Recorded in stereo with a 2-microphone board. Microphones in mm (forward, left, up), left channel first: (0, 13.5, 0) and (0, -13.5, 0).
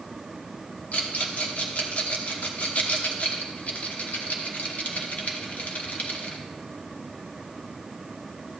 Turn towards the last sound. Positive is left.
turn(degrees=60)  # may be behind; listen again after turning